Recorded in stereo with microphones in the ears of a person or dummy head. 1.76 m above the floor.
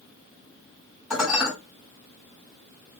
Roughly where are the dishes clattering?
Centre.